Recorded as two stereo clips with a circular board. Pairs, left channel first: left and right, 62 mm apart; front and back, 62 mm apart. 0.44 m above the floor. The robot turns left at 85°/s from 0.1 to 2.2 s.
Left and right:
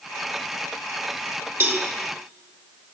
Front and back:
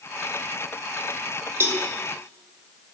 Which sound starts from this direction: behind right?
A cowbell, at 1.6 s.